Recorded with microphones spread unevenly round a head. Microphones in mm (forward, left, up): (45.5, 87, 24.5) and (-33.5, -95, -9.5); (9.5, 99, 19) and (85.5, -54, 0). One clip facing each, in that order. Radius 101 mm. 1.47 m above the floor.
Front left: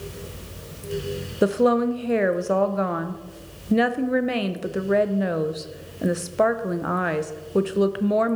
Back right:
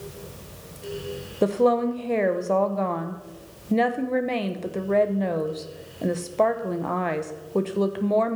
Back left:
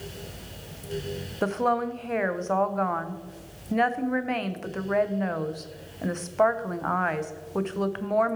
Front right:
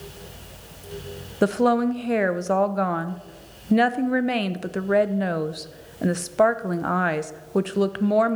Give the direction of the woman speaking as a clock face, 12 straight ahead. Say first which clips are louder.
Front left 1 dB, front right 6 dB; 12 o'clock.